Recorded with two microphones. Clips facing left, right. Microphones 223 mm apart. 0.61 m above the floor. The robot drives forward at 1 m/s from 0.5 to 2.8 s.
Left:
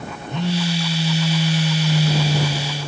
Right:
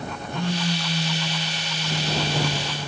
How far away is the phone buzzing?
About 1.4 m.